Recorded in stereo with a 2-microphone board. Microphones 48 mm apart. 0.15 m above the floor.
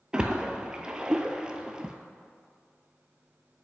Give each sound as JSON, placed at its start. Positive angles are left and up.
{"t": 0.1, "sound": "a splash", "side_deg": -15, "distance_m": 0.6}